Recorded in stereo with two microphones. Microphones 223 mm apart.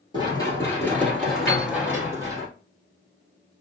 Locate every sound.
0.1 s running footsteps: 20° left (ahead or behind), 1.9 m; by 2.5 s 20° right (ahead or behind), 1.8 m
1.5 s a piano: 10° left (ahead or behind), 2 m